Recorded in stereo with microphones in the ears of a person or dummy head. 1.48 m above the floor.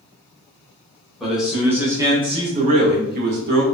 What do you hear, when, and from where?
1.2 s a man speaking: 5° left (ahead or behind), 1.1 m; by 3.6 s 70° right (ahead or behind), 0.9 m